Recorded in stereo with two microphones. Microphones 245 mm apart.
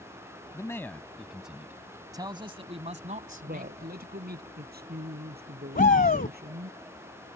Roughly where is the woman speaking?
Right.